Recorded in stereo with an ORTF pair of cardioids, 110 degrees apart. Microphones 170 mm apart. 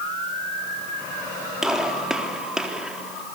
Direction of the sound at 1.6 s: 5° right.